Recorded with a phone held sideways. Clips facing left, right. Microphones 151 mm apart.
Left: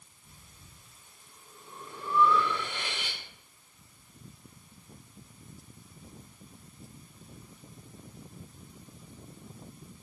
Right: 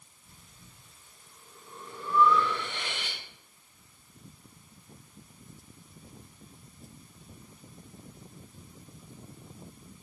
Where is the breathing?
15° left (ahead or behind), 3.5 m.